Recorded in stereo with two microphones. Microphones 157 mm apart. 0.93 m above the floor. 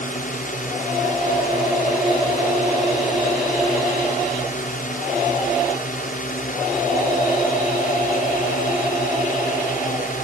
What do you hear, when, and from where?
0.0 s a drone: 60° left (ahead or behind)